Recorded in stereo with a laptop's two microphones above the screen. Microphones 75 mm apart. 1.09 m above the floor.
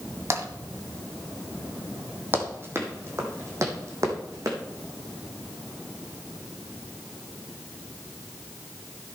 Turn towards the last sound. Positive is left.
turn(degrees=-45)  # may be behind; listen again after turning